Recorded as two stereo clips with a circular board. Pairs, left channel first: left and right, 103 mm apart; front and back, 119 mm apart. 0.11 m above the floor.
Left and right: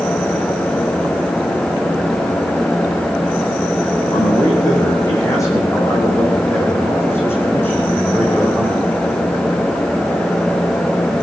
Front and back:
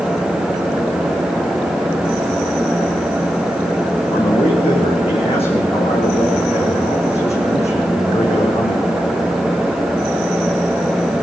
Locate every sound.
4.1 s a man speaking: 40° left, 7.5 m; by 8.9 s 10° left, 5 m